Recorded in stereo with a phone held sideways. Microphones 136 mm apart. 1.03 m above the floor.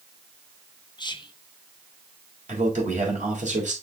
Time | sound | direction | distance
1.0 | whispering | 35° left (ahead or behind) | 0.9 m
2.5 | a man speaking | 70° right (ahead or behind) | 4 m